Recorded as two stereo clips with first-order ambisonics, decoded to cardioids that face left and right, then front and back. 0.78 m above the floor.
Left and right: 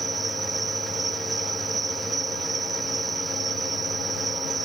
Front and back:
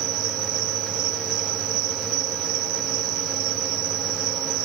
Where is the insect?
165° right.